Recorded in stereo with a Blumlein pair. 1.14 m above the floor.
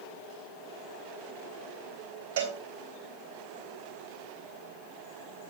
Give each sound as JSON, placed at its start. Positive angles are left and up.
{"t": 2.4, "sound": "a cowbell", "azimuth_deg": -55, "distance_m": 4.0}